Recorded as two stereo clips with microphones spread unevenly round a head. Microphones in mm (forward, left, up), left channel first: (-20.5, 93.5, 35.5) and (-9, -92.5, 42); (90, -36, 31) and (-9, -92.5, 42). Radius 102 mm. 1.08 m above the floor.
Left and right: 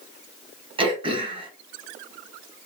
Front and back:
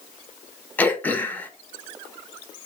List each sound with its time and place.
0.8 s throat clearing: 35° right, 0.8 m